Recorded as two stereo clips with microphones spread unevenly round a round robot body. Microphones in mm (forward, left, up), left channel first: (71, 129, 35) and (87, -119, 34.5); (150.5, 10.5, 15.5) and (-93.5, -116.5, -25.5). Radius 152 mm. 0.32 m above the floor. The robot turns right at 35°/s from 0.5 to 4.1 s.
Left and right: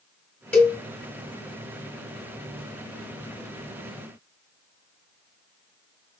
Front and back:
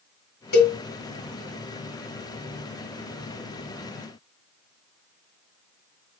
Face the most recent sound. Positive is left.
turn(degrees=135)